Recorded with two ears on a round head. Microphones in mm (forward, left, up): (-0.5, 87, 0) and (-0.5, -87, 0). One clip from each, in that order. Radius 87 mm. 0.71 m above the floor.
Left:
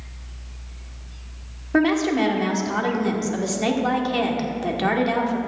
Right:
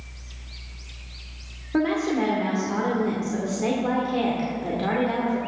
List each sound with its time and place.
1.7 s a woman speaking: 65° left (ahead or behind), 2.0 m